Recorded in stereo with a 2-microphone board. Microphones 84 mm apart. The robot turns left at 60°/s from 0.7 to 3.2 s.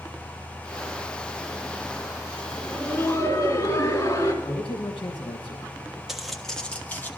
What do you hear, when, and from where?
2.6 s laughter: 175° left, 2.5 m; by 4.3 s 135° left, 2.5 m
4.4 s a man speaking: 80° left, 1.1 m
6.1 s footsteps: 5° right (ahead or behind), 1.2 m; by 7.1 s 25° left (ahead or behind), 1.4 m